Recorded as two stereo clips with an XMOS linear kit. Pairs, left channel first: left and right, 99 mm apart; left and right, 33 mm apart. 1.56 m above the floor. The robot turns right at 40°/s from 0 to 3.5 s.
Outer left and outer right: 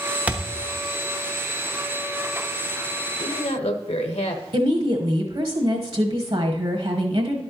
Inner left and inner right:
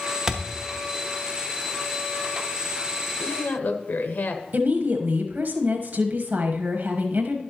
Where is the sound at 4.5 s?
70° right (ahead or behind), 1.2 m.